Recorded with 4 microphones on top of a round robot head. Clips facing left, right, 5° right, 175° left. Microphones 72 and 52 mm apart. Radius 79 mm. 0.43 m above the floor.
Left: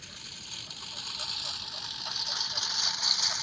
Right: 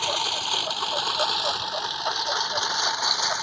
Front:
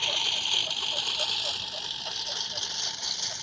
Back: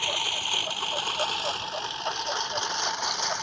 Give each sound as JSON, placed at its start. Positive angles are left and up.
{"t": 0.0, "sound": "a lawn mower", "azimuth_deg": -105}